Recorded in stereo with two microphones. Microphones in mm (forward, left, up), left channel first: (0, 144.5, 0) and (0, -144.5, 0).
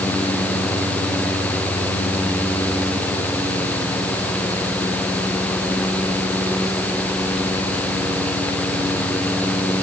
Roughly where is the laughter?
No laughter in this recording.